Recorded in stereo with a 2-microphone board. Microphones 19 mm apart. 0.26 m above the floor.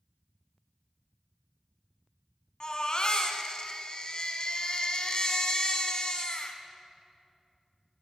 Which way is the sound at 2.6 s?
50° left (ahead or behind).